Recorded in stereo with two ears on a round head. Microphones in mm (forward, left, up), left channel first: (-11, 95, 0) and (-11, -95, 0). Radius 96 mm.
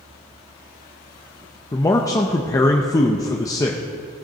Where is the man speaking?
15° left (ahead or behind), 0.6 m.